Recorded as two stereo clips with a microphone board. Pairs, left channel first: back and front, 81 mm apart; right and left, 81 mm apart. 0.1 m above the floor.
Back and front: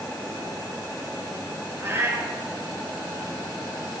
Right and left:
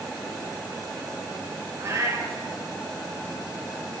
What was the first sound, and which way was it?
A cat meowing, 50° left.